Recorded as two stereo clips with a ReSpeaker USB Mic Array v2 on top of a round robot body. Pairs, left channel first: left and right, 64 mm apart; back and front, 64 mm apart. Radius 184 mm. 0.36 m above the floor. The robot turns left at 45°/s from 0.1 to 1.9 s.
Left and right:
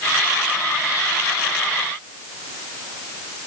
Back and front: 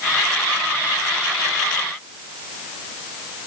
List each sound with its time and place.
Only background noise.